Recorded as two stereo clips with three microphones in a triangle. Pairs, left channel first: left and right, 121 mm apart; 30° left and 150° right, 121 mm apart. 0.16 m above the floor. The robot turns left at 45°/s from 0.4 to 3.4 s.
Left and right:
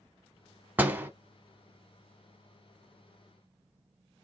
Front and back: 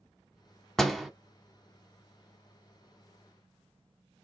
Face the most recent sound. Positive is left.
turn(degrees=-165)